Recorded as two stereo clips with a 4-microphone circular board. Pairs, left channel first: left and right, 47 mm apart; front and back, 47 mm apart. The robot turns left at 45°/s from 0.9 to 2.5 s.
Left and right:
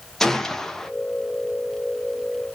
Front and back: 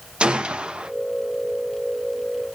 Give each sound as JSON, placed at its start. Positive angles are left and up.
{"t": 0.2, "sound": "a gunshot", "azimuth_deg": 160, "distance_m": 0.6}